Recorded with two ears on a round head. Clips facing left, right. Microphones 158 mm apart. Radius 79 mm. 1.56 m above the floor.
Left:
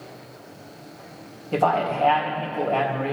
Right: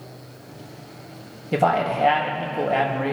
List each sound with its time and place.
1.5 s a man speaking: 15° right (ahead or behind), 1.9 m